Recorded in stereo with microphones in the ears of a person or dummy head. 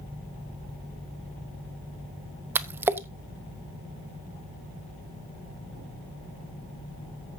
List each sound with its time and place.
2.5 s a splash: 10° right (ahead or behind), 0.7 m